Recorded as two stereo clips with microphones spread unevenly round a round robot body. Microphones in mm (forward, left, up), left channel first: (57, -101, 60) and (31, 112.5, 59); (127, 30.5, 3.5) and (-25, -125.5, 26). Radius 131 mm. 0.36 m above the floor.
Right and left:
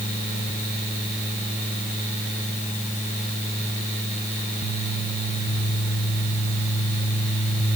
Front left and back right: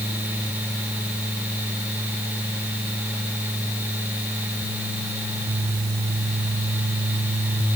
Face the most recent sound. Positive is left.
No sound to turn to.